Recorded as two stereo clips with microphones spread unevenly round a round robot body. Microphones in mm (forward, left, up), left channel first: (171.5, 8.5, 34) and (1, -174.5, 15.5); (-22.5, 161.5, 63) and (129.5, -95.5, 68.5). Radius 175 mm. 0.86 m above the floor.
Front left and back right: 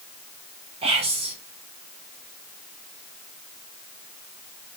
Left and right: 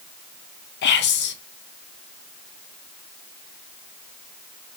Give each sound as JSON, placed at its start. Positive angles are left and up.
{"t": 0.8, "sound": "whispering", "azimuth_deg": 165, "distance_m": 0.6}